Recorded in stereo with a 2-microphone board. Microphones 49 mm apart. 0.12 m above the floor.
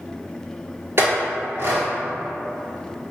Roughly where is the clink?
Right.